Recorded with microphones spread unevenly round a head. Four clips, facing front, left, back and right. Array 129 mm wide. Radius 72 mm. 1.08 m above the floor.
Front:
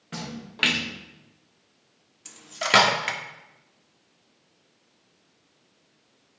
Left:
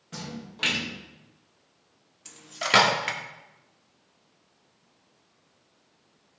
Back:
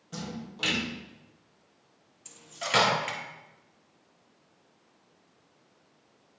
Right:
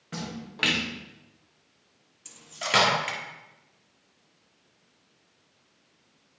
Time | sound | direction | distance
0.1 | a splash | 30° right | 1.7 m
2.2 | cutlery clinking | 10° left | 1.5 m